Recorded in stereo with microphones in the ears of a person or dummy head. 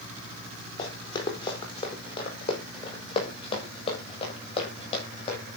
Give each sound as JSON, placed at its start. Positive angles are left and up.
{"t": 0.8, "sound": "running footsteps", "side_deg": 35, "distance_m": 4.5}